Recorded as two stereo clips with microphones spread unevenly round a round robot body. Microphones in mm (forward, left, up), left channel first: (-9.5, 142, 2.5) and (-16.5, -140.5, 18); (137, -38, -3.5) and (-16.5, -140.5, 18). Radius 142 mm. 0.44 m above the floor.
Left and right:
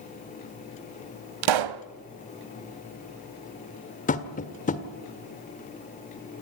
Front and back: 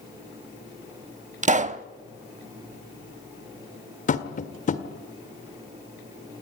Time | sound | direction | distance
1.4 | a pop | 95° right | 0.8 m
4.1 | tapping | 40° left | 1.5 m